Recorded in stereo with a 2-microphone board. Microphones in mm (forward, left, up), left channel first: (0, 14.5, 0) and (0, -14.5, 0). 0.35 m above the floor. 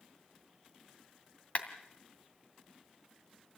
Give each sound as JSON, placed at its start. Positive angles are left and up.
{"t": 1.6, "sound": "a clap", "side_deg": 50, "distance_m": 2.5}